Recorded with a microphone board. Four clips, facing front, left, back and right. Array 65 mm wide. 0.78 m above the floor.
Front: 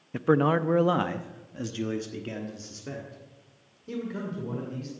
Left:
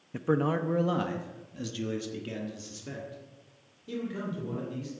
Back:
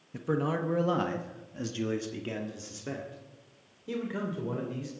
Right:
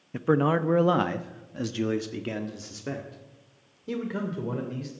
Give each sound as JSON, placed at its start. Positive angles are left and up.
{"t": 0.1, "sound": "a man speaking", "azimuth_deg": -20, "distance_m": 0.7}